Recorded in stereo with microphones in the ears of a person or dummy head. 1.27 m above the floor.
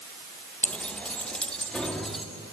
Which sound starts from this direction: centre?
Keys jangling, at 0.6 s.